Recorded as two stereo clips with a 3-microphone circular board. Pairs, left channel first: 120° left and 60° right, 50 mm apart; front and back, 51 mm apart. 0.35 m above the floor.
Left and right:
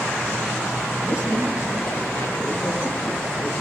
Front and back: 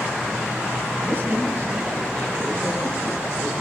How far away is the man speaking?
About 8.5 m.